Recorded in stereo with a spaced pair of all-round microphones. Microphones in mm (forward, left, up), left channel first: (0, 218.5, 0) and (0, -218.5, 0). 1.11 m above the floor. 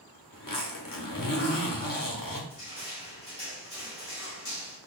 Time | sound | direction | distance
0.3 | a zipper | 50° left (ahead or behind) | 0.8 m
2.5 | crushing | 65° left (ahead or behind) | 1.9 m